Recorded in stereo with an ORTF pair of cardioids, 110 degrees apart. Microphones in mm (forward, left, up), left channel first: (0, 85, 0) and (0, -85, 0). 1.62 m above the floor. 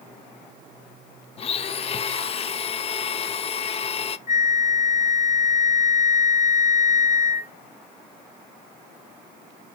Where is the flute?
45° left, 1.3 m.